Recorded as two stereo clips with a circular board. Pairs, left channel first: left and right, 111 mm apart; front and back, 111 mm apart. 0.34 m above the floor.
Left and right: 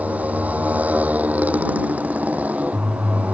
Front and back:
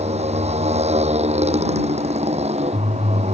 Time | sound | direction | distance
0.0 | a motorcycle | 165° right | ?